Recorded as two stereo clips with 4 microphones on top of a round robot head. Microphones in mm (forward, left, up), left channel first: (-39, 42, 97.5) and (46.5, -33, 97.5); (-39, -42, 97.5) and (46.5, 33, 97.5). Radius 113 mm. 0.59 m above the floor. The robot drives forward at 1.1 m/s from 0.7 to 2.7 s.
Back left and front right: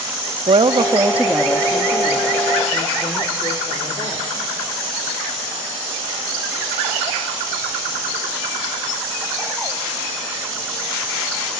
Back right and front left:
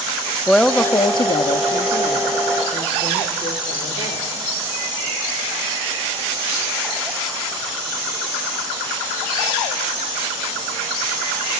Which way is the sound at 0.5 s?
55° right.